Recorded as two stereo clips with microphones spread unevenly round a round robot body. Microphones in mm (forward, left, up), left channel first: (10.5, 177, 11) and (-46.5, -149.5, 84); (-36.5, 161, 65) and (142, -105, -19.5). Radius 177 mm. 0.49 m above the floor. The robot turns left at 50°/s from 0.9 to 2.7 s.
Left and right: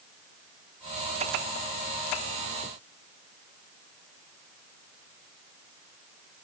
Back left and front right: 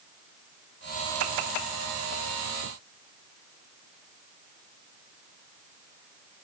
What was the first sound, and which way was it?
Only background noise.